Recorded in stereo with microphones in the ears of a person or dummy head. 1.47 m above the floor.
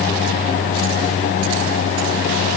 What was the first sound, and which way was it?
Only background noise.